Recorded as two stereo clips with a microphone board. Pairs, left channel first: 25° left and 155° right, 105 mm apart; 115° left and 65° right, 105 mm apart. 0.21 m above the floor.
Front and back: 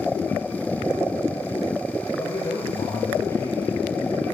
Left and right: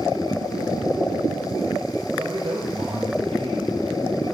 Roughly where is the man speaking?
Ahead right.